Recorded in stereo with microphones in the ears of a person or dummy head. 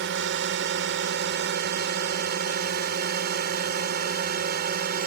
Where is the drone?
55° right (ahead or behind); by 5.1 s 45° right (ahead or behind).